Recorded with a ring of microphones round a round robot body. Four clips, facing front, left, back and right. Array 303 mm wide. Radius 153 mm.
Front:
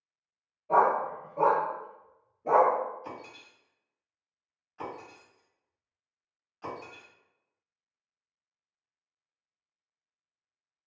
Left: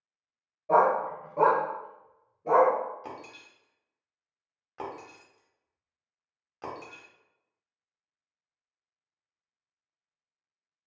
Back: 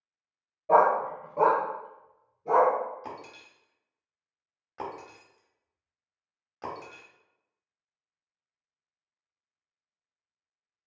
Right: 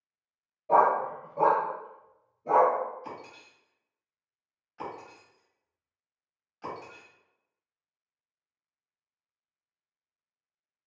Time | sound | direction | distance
0.7 | a dog barking | 170° left | 0.8 m
3.0 | breaking glass | 140° left | 1.0 m